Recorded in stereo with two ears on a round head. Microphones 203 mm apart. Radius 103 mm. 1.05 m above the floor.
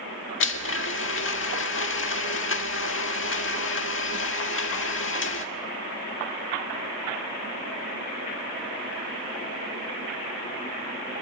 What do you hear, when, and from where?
0.4 s a blender: 60° left (ahead or behind), 1.8 m